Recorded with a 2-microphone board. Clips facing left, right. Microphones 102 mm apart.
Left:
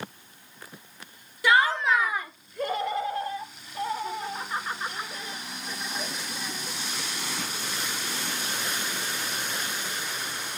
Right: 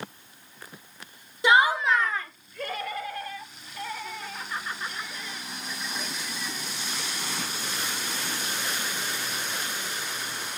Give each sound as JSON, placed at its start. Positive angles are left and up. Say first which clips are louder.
{"t": 1.4, "sound": "laughter", "louder": "right 1 dB", "side_deg": -20}